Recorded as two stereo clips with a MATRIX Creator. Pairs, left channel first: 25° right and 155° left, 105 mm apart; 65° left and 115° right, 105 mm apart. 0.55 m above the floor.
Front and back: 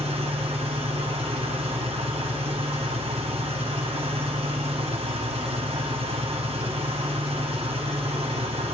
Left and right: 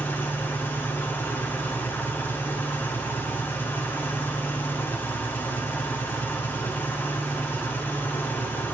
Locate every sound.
0.0 s an engine running: 135° left, 2.5 m